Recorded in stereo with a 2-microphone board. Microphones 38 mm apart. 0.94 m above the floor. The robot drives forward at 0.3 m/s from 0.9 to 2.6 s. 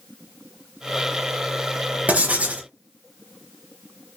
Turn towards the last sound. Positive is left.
turn(degrees=-35)  # may be behind; listen again after turning